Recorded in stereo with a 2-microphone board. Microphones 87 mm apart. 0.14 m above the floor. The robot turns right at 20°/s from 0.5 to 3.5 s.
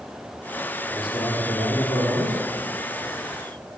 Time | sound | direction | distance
0.9 | a man speaking | 70° left (ahead or behind) | 4.5 m